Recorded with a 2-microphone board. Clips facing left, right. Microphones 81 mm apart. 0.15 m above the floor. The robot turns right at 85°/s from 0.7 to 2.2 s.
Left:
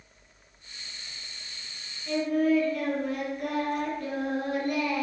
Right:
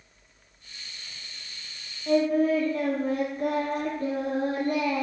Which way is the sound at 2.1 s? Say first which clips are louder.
Right 3 dB; 45° right (ahead or behind).